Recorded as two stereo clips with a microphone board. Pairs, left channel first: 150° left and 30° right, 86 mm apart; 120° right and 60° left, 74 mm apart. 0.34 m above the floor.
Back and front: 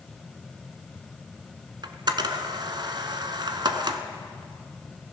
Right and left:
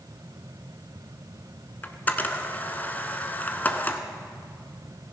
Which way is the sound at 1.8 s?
55° right.